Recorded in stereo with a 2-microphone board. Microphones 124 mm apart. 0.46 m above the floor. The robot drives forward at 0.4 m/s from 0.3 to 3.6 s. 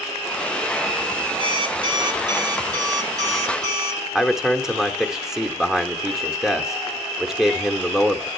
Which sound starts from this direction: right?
An alarm clock, at 1.4 s.